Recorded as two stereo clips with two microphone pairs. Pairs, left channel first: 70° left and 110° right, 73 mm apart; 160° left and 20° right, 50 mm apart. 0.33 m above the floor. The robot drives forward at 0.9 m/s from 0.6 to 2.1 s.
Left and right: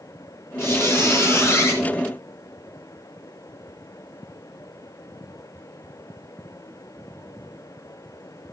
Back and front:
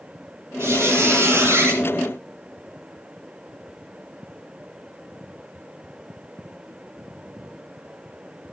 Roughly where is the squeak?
Ahead.